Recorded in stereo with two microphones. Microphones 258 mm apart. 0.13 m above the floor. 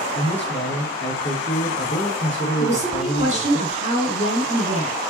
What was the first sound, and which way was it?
A man speaking, 50° left (ahead or behind).